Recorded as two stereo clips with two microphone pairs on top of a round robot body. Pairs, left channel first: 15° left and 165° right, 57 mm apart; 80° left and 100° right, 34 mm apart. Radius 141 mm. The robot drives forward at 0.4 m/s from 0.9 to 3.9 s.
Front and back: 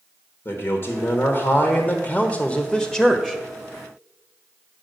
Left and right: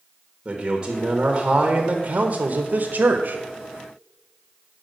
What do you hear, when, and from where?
0.5 s a man speaking: 30° right, 1.2 m; by 3.4 s 100° right, 0.8 m